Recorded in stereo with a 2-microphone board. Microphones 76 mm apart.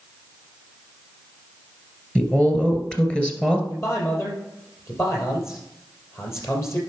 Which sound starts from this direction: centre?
A woman speaking, at 2.1 s.